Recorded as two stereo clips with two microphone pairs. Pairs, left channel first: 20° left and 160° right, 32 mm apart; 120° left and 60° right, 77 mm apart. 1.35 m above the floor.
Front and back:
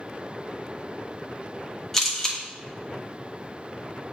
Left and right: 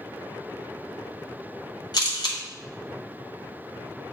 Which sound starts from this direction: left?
A camera shutter, at 1.9 s.